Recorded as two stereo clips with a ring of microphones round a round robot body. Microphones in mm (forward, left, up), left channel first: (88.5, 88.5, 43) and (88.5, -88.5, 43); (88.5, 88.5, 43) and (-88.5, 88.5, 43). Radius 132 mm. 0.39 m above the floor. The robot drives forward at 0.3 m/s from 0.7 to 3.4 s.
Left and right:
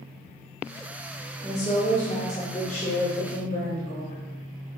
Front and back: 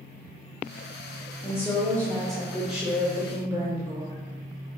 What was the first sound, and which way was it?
A woman speaking, 65° left.